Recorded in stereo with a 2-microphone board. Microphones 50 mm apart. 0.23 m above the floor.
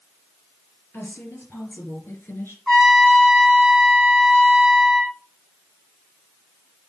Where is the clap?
I don't hear a clap.